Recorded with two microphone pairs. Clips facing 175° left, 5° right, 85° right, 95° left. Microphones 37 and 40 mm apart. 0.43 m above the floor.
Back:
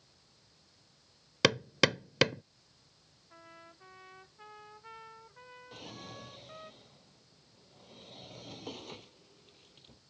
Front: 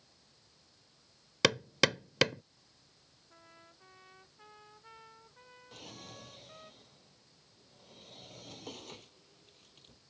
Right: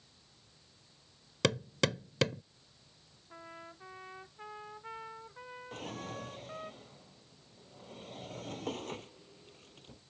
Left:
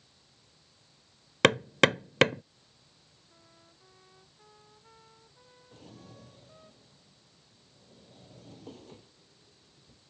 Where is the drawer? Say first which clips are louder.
Back 2 dB, right 9 dB; 105° right.